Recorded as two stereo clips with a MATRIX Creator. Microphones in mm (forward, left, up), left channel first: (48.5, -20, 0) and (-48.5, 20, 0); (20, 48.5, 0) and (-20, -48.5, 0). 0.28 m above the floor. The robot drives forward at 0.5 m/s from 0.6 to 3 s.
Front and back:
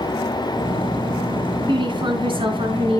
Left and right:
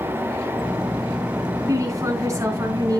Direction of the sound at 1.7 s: 170° right.